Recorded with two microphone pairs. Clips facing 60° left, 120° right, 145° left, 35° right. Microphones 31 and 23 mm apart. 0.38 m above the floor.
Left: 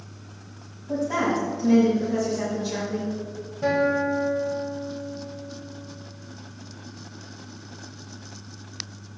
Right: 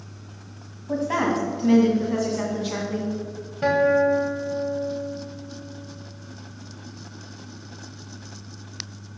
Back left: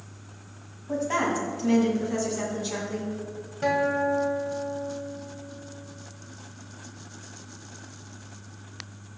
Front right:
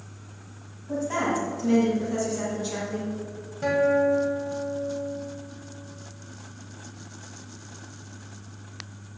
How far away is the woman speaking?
About 2 m.